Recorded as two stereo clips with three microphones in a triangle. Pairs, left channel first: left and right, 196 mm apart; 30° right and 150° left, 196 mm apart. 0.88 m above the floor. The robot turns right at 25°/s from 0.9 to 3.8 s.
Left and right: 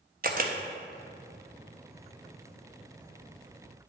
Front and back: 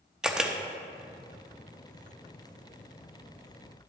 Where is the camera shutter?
125° right, 0.6 m.